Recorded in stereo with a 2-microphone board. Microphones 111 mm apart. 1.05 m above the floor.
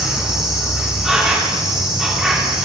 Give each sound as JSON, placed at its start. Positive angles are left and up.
{"t": 0.0, "sound": "an insect", "side_deg": -5, "distance_m": 2.5}